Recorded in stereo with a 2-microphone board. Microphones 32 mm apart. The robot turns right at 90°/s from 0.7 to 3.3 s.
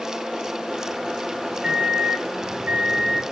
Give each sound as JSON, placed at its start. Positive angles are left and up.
{"t": 1.6, "sound": "a microwave", "azimuth_deg": -160, "distance_m": 0.8}